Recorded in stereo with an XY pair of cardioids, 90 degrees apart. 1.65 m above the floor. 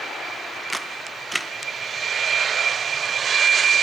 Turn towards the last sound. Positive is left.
turn(degrees=-10)